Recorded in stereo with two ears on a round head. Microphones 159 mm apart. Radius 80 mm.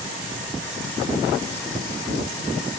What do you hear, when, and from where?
Only background noise.